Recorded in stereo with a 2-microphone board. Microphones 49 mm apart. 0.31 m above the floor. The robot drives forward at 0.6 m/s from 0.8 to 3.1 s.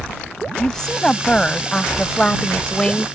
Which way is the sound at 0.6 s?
15° left (ahead or behind).